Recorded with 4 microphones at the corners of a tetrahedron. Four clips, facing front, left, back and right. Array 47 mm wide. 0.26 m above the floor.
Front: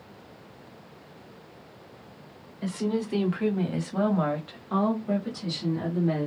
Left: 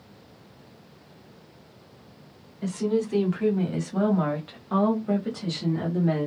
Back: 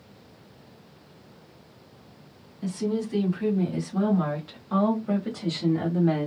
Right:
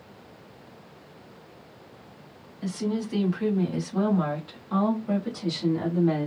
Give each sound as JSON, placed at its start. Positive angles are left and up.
{"t": 2.6, "sound": "a woman speaking", "azimuth_deg": 15, "distance_m": 1.8}